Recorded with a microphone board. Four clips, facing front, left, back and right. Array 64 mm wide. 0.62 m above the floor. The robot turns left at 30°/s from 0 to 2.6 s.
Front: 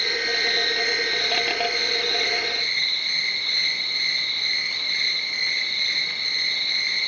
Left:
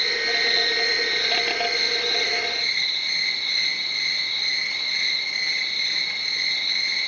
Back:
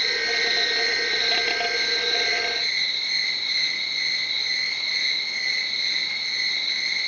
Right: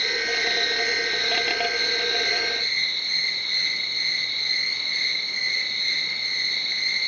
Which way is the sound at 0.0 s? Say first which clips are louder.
Left 1 dB, even; 90° left.